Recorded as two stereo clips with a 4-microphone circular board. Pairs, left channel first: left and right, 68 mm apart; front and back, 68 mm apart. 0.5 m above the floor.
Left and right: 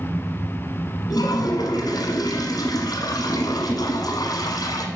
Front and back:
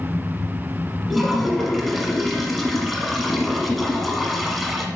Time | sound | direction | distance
1.1 | a toilet flushing | 95° left | 1.3 m